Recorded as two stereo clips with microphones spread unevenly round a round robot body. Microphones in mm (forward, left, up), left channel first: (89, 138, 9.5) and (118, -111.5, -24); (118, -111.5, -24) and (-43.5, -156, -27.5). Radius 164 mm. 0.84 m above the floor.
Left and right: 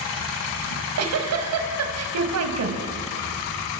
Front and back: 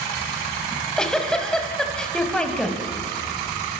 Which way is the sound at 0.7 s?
70° right.